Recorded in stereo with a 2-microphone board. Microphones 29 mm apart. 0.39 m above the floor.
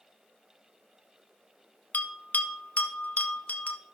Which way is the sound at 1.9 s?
55° left (ahead or behind).